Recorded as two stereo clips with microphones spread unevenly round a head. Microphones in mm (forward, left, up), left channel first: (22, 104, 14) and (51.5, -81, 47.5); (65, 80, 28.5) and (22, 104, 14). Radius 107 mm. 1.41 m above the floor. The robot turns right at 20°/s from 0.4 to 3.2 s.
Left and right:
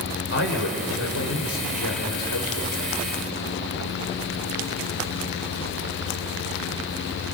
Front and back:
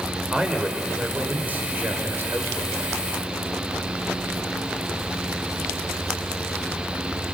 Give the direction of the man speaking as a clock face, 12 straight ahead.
10 o'clock.